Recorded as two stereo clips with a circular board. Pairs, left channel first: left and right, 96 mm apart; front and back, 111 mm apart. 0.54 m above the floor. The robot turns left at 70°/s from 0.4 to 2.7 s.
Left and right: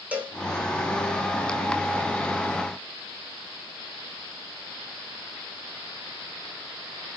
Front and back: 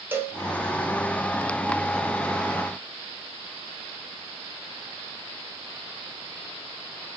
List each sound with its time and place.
0.1 s a cowbell: 140° right, 1.2 m